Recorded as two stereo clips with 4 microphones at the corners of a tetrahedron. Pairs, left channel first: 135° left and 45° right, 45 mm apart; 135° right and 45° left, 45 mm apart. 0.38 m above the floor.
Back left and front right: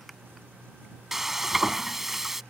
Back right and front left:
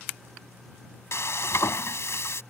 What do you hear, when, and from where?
1.1 s frying: 130° right